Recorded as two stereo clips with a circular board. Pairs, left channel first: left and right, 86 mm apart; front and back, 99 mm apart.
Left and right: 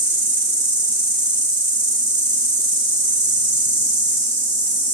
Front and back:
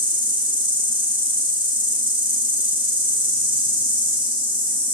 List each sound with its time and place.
0.0 s an insect: 145° left, 6.5 m